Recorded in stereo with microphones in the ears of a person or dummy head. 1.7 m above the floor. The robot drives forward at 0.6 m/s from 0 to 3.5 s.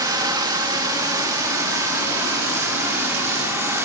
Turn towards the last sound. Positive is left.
turn(degrees=-10)  # may be behind; listen again after turning